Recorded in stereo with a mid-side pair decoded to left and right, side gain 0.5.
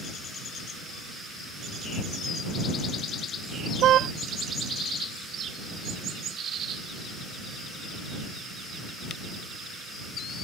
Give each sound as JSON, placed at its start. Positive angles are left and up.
{"t": 3.8, "sound": "a car horn", "azimuth_deg": -65}